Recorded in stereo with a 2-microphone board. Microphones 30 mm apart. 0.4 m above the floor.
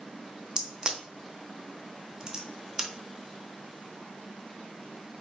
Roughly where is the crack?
Right.